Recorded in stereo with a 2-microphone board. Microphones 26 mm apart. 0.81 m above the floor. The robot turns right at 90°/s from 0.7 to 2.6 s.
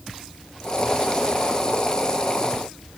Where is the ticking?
No ticking in this recording.